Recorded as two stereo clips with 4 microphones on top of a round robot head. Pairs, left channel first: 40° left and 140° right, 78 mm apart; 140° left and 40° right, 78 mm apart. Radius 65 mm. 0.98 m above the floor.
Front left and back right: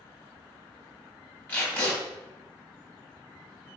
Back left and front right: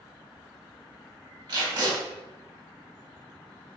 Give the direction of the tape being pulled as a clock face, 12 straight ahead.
1 o'clock.